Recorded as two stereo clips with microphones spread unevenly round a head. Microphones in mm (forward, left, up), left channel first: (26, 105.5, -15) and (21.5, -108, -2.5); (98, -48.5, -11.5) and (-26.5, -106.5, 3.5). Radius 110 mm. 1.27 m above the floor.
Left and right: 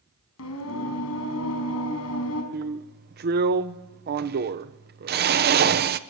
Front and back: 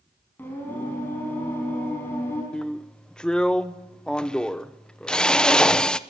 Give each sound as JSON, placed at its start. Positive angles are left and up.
{"t": 0.4, "sound": "singing", "azimuth_deg": 110, "distance_m": 4.0}
{"t": 2.5, "sound": "a drill", "azimuth_deg": -55, "distance_m": 0.9}